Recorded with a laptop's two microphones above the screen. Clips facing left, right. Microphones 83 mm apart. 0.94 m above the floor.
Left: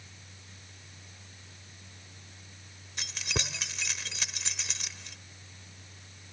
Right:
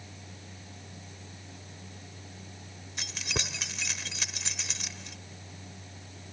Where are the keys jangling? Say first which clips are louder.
Even; centre (ahead or behind).